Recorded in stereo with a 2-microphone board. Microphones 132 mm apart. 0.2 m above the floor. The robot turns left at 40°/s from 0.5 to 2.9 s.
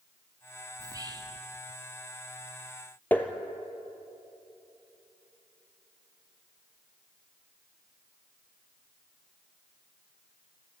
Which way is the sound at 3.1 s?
10° left (ahead or behind).